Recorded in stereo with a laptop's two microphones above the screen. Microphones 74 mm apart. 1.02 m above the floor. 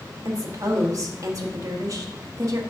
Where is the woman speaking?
45° right (ahead or behind), 1.1 m.